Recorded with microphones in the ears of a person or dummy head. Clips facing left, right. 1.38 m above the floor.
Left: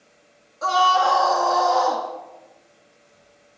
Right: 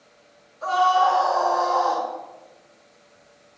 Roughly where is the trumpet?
No trumpet in this recording.